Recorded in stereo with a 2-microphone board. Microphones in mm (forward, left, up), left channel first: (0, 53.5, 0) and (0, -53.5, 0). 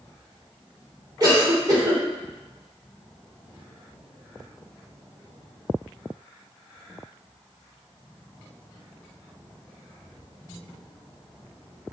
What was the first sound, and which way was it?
A cough, 35° right (ahead or behind).